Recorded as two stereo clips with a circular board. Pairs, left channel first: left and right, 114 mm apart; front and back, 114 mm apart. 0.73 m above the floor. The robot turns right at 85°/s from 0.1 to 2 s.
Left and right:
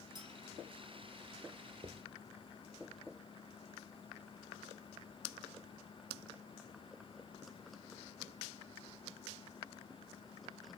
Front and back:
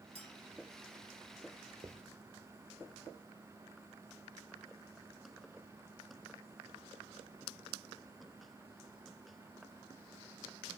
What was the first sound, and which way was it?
A clink, 145° right.